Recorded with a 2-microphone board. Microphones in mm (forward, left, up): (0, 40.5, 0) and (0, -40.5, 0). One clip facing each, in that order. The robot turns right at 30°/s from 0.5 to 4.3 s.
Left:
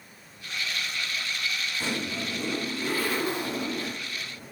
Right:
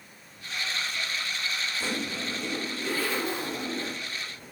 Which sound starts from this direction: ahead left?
A zipper, at 1.8 s.